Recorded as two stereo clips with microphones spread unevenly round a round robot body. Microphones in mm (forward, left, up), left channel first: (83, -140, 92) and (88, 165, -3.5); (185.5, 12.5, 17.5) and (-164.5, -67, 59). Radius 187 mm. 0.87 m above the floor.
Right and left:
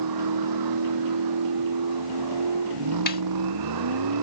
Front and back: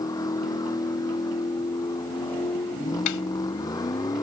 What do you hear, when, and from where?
0.0 s a vehicle: 95° left
3.1 s a snare drum: 30° right